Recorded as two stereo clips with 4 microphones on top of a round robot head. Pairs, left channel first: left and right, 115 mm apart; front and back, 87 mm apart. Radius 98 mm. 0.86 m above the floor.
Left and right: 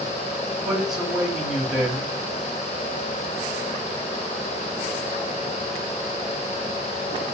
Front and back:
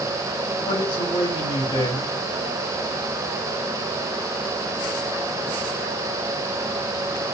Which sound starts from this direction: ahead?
A man speaking, at 0.6 s.